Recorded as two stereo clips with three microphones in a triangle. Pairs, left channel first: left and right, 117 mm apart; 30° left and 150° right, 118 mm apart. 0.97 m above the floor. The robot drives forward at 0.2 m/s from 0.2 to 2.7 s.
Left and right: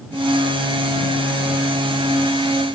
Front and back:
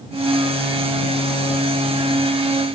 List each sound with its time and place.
Only background noise.